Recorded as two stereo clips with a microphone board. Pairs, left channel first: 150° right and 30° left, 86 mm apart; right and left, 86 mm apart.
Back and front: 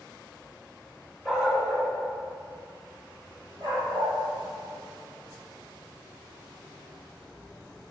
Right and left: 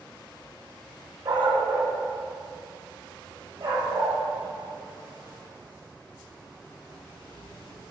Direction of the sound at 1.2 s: 110° left.